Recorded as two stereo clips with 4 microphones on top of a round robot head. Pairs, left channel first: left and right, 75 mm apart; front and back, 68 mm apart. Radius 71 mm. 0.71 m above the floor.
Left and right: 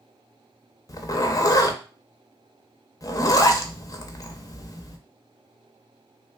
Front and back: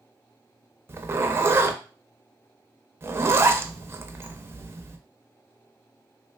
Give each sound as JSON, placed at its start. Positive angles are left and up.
{"t": 0.9, "sound": "a zipper", "azimuth_deg": 125, "distance_m": 0.6}